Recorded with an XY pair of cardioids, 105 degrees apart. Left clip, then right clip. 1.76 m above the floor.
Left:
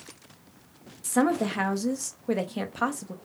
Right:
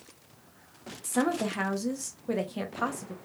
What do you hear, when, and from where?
1.0 s a woman speaking: 25° left, 0.6 m